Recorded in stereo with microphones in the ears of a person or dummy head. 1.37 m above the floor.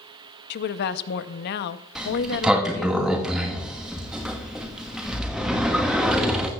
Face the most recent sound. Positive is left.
turn(degrees=0)  # may be behind; listen again after turning